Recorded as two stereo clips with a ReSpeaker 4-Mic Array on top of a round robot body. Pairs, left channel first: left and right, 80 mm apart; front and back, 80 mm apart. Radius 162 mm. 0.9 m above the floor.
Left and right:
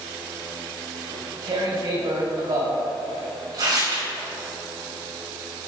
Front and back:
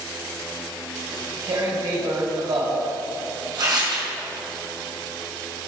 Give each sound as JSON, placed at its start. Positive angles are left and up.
{"t": 1.1, "sound": "tearing paper", "azimuth_deg": -135, "distance_m": 2.0}